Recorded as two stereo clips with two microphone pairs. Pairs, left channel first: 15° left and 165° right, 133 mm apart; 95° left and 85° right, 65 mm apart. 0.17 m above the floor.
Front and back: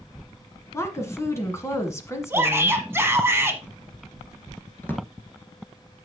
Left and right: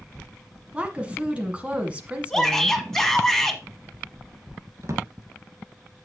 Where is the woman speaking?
30° right, 1.4 m.